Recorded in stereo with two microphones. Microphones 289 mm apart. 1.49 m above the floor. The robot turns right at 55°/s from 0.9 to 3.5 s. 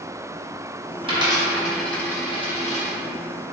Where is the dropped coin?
20° right (ahead or behind), 0.8 m; by 3.0 s 30° left (ahead or behind), 0.8 m.